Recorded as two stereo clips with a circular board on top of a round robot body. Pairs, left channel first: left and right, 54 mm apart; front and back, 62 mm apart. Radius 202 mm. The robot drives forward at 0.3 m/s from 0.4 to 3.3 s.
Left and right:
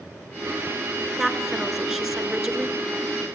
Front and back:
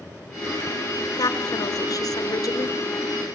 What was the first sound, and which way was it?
A woman speaking, 10° right.